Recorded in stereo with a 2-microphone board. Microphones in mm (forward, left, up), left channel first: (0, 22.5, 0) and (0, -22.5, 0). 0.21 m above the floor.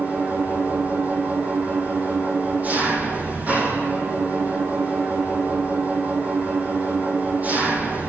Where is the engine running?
35° right (ahead or behind), 6.5 m.